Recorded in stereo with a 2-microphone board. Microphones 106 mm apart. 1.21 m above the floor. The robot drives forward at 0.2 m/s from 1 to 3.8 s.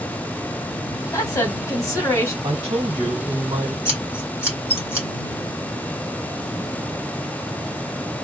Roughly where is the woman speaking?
Left.